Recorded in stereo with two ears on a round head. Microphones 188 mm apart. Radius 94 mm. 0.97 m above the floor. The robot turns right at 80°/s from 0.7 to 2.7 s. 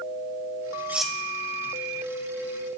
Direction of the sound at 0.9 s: 10° right (ahead or behind).